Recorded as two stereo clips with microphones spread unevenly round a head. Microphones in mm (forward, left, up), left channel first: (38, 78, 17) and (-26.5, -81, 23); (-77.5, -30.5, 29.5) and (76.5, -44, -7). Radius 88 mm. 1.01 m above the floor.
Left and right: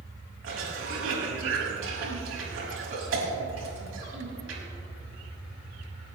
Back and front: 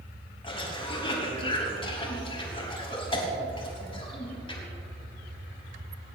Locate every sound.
0.4 s a cough: 130° right, 5.5 m